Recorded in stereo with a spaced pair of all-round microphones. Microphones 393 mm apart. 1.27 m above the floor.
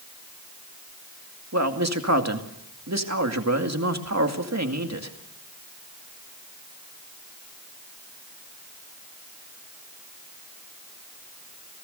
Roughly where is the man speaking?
Right.